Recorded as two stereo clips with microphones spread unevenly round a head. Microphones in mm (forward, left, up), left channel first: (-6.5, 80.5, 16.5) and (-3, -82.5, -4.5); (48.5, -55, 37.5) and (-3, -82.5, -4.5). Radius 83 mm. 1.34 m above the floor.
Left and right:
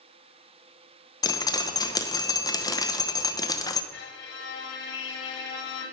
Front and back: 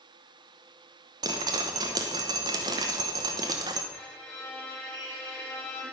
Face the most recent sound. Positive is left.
turn(degrees=110)